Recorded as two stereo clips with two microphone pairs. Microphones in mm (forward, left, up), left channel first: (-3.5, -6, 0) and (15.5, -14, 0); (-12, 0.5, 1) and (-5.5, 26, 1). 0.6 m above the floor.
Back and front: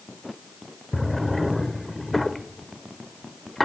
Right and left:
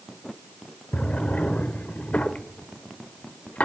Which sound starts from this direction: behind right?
A drawer, at 0.9 s.